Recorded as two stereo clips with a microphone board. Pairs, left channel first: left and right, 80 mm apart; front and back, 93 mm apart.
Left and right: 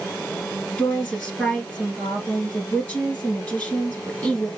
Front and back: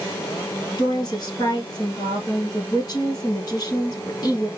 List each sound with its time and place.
0.8 s a woman speaking: 20° left, 2 m